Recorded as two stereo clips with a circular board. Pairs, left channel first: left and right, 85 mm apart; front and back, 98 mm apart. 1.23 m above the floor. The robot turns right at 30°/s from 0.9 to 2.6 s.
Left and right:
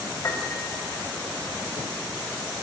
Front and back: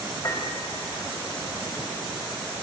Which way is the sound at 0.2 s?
50° left.